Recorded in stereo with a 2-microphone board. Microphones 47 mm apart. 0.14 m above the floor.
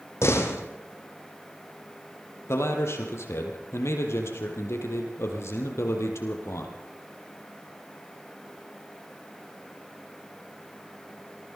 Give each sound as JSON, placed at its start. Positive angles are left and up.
{"t": 0.2, "sound": "a door slam", "side_deg": 65, "distance_m": 3.5}
{"t": 2.5, "sound": "a man speaking", "side_deg": 65, "distance_m": 5.0}